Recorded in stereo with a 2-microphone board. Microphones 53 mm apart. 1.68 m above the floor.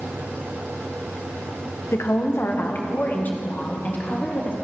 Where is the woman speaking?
60° left (ahead or behind), 1.2 m; by 4.5 s 30° left (ahead or behind), 3.5 m.